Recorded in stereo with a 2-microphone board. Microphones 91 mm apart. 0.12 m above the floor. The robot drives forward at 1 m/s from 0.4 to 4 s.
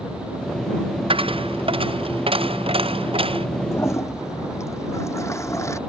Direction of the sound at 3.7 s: 30° left (ahead or behind).